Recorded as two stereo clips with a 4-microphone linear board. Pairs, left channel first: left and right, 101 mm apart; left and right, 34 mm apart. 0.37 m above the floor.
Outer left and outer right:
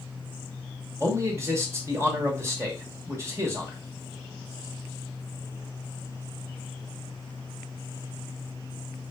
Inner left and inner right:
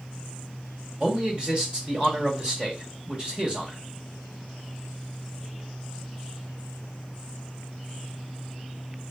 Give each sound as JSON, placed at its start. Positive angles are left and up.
{"t": 1.0, "sound": "a man speaking", "side_deg": -25, "distance_m": 1.1}